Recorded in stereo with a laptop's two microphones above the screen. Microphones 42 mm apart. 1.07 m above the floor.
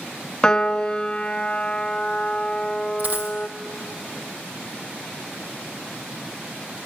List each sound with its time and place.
0.4 s a piano: 20° left (ahead or behind), 0.6 m
3.0 s a dropped coin: 40° right (ahead or behind), 1.9 m